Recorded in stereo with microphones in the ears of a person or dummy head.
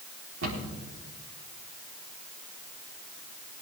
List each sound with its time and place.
0.4 s a cupboard door: 75° right (ahead or behind), 4 m